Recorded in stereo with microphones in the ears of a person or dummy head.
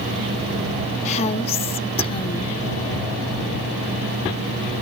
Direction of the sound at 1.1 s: 35° left (ahead or behind).